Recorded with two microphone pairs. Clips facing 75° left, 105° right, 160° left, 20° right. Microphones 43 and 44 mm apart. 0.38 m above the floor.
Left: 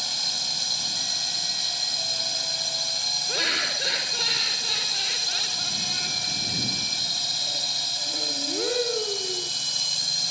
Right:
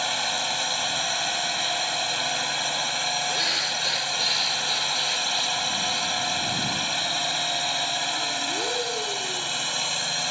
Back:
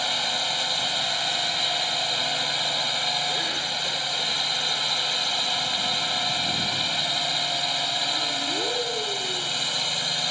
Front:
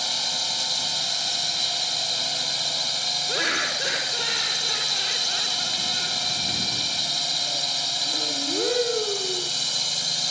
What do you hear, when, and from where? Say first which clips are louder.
0.0 s a drone: right 6 dB, back 3 dB; 140° right
3.3 s laughter: even, front 3 dB; straight ahead